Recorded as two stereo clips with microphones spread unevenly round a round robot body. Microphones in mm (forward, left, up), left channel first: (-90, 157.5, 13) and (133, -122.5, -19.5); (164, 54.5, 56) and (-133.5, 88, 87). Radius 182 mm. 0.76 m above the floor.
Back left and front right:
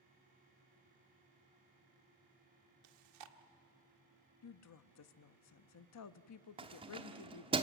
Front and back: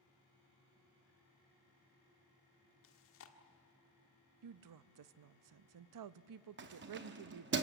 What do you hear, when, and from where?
2.8 s chewing: 55° right, 1.6 m
4.4 s a woman speaking: 175° left, 0.7 m
6.6 s keys jangling: 125° right, 1.0 m